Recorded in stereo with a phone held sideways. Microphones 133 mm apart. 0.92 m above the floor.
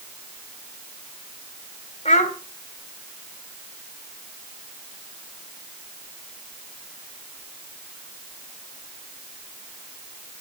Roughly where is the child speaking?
Left.